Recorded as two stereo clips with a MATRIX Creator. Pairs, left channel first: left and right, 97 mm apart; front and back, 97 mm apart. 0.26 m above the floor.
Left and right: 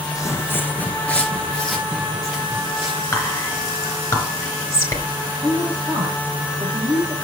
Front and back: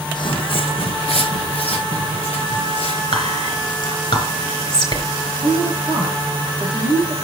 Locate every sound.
0.1 s footsteps: 35° left, 0.9 m; by 3.0 s 5° right, 3.5 m
3.1 s whispering: 30° left, 4 m
5.4 s a woman speaking: 35° right, 5.5 m